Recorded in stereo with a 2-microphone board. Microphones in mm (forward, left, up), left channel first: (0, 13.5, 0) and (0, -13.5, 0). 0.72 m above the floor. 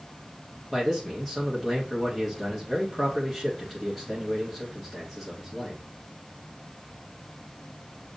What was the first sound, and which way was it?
A man speaking, 5° left (ahead or behind).